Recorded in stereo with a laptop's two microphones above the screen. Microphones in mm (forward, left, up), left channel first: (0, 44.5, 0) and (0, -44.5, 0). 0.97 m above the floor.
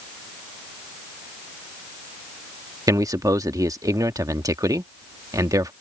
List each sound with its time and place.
2.9 s a man speaking: 40° right (ahead or behind)